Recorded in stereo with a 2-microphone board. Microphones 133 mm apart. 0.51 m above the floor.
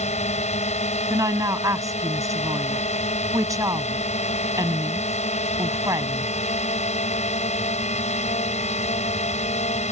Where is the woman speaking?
25° right (ahead or behind).